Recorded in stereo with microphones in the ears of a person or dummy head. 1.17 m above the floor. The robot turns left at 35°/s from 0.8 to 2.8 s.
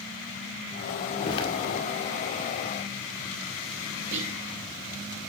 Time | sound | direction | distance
1.2 | footsteps | 20° left (ahead or behind) | 1.7 m
4.1 | whispering | 70° right (ahead or behind) | 2.5 m